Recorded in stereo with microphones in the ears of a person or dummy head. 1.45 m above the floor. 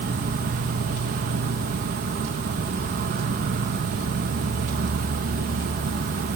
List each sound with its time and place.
0.0 s an insect: 50° right (ahead or behind)